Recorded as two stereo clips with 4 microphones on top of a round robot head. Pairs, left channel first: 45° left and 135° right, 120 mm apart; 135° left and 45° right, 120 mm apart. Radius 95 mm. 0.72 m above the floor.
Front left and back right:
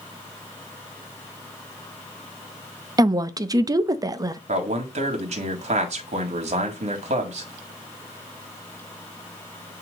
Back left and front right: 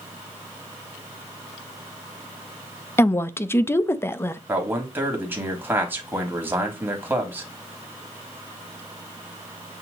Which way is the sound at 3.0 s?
170° right.